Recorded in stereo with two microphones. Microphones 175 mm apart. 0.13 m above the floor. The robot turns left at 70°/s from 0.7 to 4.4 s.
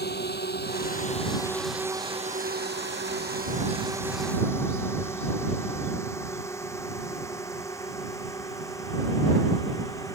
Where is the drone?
65° left (ahead or behind); by 10.2 s 15° left (ahead or behind).